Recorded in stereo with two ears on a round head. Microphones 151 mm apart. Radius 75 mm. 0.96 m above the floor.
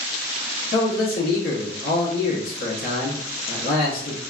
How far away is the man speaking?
About 1.2 m.